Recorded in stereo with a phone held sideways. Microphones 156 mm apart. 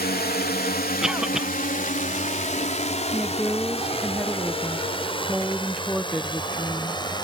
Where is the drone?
75° left (ahead or behind); by 7.2 s 30° left (ahead or behind).